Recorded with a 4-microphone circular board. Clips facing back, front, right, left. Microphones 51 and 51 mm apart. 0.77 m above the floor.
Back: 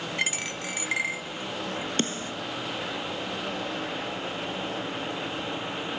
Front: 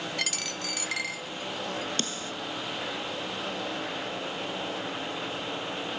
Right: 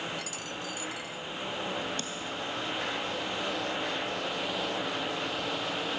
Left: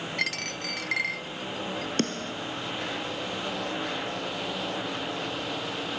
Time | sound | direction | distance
0.2 | a dropped coin | 115° left | ?
2.0 | a snare drum | 120° left | ?